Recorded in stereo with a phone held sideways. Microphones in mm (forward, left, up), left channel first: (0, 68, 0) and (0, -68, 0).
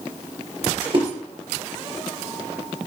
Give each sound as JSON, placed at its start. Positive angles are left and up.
{"t": 0.8, "sound": "a splash", "side_deg": -40, "distance_m": 4.5}